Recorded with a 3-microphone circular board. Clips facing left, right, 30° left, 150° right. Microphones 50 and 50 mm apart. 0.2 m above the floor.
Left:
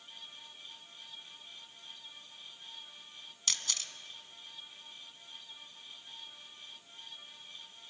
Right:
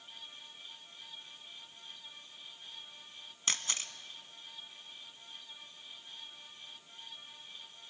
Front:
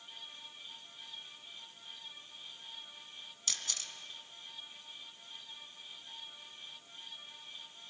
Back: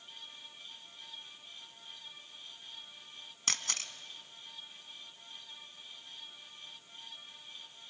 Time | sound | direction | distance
3.5 | a camera shutter | 140° right | 1.2 m